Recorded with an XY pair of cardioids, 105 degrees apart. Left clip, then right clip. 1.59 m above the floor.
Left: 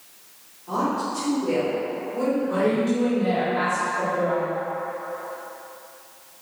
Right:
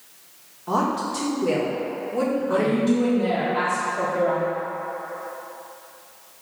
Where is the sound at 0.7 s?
65° right, 1.5 m.